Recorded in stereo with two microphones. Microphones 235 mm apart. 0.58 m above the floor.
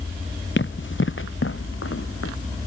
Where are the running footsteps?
60° left (ahead or behind); by 2.3 s 80° left.